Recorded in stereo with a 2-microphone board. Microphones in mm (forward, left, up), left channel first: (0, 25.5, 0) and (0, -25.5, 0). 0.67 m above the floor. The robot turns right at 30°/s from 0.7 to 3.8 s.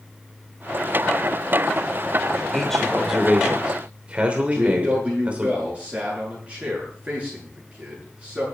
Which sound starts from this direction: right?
A man speaking, at 4.5 s.